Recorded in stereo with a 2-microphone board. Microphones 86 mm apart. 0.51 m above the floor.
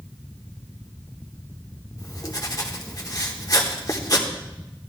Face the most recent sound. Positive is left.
turn(degrees=40)  # may be behind; listen again after turning